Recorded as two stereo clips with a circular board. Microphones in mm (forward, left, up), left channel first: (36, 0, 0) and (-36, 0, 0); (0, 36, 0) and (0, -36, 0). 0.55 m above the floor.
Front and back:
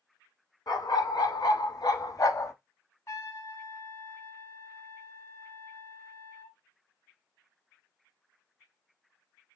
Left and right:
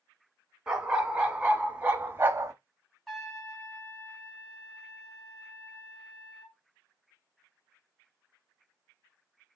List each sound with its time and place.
0.7 s a dog barking: 10° right, 1.5 m; by 2.5 s 40° right, 0.7 m
3.1 s a trumpet: 5° left, 1.6 m